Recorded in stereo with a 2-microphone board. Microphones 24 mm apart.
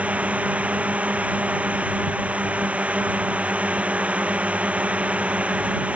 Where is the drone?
70° right (ahead or behind); by 6.0 s 60° right (ahead or behind).